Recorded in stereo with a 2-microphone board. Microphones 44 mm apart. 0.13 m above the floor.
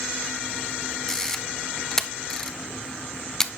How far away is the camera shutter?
About 0.6 m.